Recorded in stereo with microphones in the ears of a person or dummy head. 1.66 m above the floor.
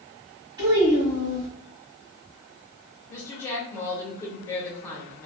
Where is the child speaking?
20° right (ahead or behind), 1.2 m.